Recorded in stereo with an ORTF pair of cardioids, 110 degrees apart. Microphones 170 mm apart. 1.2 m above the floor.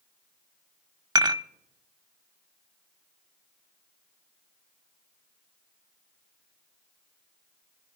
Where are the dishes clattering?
20° right, 0.9 m.